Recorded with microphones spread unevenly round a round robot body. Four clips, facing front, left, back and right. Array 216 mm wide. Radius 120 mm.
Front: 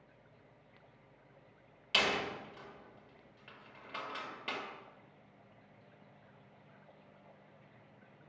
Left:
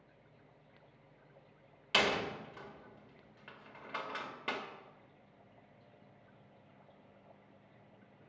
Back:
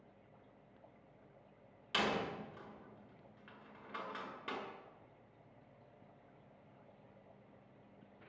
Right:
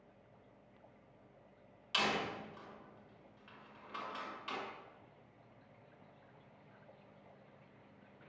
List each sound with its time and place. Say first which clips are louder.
1.9 s a door slam: left 4 dB, front 2 dB; 90° left, 2.5 m